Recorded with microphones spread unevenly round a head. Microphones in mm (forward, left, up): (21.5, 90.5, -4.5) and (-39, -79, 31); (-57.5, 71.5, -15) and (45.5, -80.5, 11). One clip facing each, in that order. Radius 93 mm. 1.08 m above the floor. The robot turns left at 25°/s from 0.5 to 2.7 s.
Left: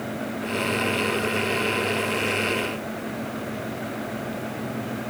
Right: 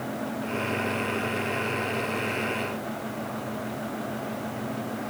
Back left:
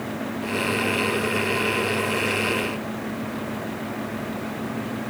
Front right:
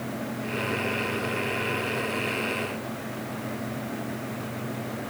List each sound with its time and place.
Only background noise.